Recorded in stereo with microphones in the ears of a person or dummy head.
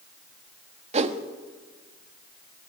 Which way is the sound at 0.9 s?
35° right (ahead or behind).